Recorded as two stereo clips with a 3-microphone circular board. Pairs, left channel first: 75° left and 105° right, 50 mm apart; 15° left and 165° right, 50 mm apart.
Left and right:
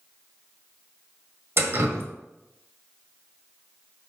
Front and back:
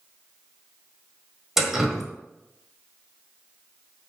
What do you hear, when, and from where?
1.6 s dripping: 85° right, 1.4 m